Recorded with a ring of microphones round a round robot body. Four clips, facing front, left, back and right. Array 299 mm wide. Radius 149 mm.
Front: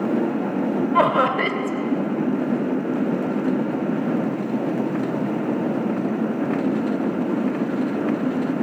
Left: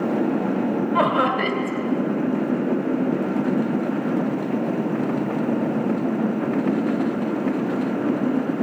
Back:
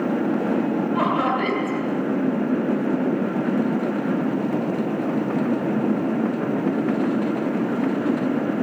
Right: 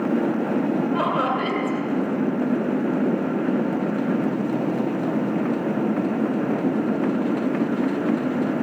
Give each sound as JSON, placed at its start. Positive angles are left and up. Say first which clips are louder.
{"t": 0.9, "sound": "laughter", "louder": "left 2 dB, front 5 dB", "azimuth_deg": 25, "distance_m": 2.0}